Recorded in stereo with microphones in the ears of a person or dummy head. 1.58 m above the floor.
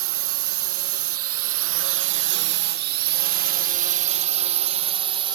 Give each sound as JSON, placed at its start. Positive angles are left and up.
{"t": 0.0, "sound": "a drone", "side_deg": -60}